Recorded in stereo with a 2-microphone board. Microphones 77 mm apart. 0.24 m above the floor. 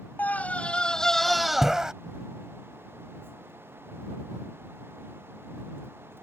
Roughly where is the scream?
Left.